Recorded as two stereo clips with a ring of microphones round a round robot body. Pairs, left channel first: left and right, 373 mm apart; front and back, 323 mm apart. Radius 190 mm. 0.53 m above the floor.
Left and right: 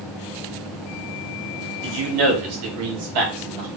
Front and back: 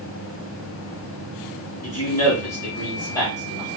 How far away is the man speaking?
About 1.1 m.